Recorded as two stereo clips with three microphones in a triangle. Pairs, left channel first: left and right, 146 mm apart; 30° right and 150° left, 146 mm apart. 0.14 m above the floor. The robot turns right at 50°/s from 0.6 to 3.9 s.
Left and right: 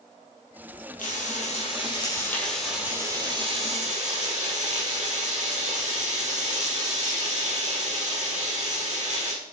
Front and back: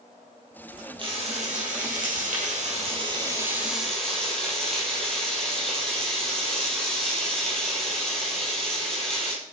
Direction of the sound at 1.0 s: 100° left.